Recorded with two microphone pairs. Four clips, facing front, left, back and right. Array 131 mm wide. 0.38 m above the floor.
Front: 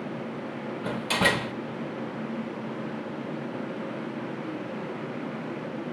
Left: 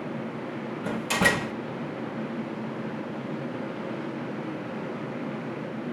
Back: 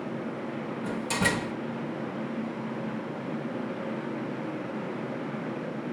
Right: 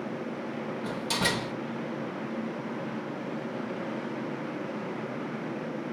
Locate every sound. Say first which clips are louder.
0.8 s a door slam: left 6 dB, front 3 dB; 30° left, 0.8 m